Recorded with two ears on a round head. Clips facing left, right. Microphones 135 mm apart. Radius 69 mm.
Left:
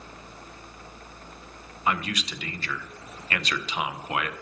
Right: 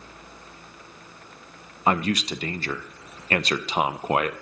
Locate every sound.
1.9 s a man speaking: 30° right (ahead or behind), 0.5 m